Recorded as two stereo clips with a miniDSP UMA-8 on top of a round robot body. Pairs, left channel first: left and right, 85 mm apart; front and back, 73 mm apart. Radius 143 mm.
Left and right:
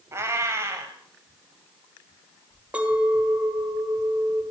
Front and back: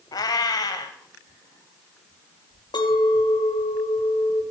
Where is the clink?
15° right, 1.6 m.